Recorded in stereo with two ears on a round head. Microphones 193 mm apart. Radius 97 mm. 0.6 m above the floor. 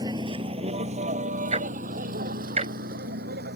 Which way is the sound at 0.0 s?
20° right (ahead or behind).